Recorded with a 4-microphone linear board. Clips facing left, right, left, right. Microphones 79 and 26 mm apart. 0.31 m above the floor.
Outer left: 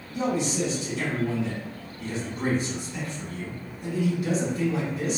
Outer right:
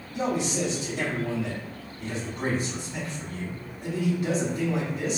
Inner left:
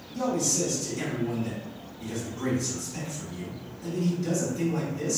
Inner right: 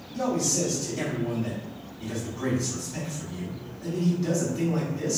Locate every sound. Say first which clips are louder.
0.1 s a man speaking: outer left 1 dB, inner right 1 dB; 45° right (ahead or behind), 1.9 m